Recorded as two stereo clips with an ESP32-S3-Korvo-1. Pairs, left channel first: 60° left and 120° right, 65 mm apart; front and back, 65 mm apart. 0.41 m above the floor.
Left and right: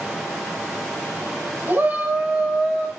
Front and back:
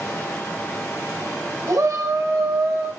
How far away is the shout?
About 1.4 m.